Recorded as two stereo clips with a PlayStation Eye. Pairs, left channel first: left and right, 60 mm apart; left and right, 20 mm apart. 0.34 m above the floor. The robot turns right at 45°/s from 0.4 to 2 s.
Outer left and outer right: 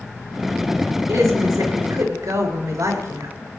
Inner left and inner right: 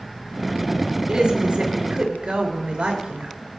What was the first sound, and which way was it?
A woman speaking, 115° right.